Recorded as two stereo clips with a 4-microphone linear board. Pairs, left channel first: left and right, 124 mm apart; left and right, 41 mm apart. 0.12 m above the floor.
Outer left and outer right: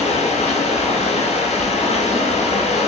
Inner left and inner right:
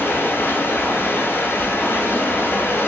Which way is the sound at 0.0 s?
60° left (ahead or behind).